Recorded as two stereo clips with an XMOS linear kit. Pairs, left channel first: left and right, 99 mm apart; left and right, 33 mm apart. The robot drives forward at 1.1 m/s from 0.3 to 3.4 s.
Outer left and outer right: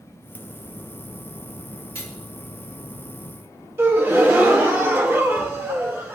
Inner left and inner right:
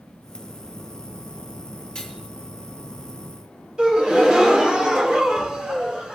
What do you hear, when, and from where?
1.9 s cutlery clinking: 25° left (ahead or behind), 4.5 m
3.8 s a gasp: 25° right (ahead or behind), 1.6 m